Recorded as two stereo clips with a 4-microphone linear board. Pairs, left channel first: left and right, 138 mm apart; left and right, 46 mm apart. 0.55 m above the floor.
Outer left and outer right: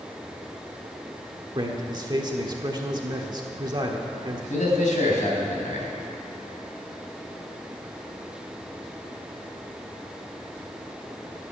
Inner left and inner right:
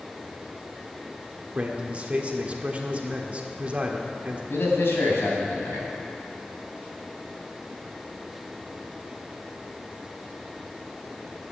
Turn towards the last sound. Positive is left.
turn(degrees=75)  # may be behind; listen again after turning